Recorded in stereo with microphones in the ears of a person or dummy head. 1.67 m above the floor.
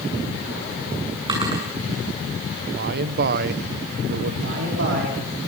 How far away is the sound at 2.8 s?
About 1.1 m.